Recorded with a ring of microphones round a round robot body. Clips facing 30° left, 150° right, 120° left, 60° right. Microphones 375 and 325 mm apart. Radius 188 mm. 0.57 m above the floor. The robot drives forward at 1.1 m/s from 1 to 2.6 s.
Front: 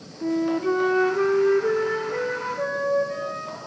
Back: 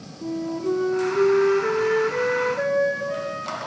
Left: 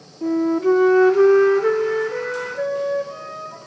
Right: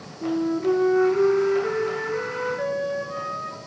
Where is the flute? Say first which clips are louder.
Front 3 dB, left 5 dB; 75° left, 0.5 m; by 3.6 s 165° left, 1.7 m.